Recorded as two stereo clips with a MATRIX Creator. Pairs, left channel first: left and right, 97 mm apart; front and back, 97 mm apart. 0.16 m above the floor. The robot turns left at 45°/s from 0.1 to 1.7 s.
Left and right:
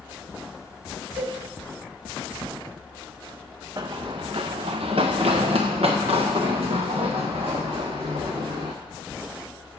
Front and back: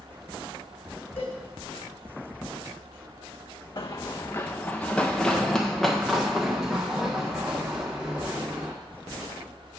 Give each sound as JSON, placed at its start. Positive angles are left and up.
{"t": 1.2, "sound": "a cowbell", "azimuth_deg": -15, "distance_m": 3.5}
{"t": 3.8, "sound": "running footsteps", "azimuth_deg": -40, "distance_m": 0.7}